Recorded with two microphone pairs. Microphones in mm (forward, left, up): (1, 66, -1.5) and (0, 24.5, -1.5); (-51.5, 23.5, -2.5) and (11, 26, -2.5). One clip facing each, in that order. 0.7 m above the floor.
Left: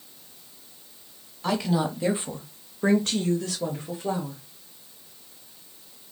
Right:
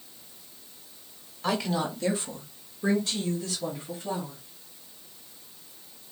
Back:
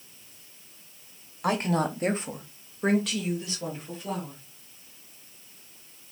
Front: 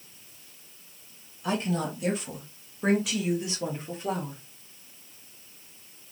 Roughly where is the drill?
No drill in this recording.